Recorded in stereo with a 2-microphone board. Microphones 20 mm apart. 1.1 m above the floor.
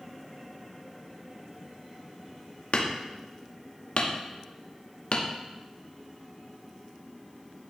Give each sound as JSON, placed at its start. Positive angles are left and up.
{"t": 2.7, "sound": "hammering", "side_deg": 75, "distance_m": 1.0}